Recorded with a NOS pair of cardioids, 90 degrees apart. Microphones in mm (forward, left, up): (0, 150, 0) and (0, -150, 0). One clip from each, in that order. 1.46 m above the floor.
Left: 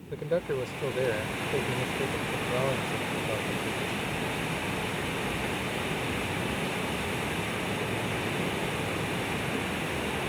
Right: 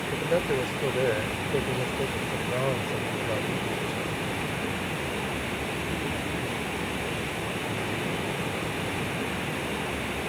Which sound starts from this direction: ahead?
A man speaking, at 0.1 s.